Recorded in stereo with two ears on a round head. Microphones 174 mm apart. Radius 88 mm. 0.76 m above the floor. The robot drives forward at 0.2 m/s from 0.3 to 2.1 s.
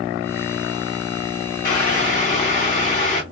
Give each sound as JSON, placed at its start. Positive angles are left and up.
{"t": 1.6, "sound": "boiling", "side_deg": 50, "distance_m": 2.0}